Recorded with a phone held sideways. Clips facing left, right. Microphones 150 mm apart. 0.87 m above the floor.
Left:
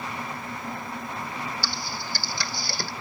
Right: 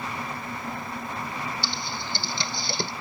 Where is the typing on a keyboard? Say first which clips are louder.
Right 1 dB; 20° right (ahead or behind), 0.7 m.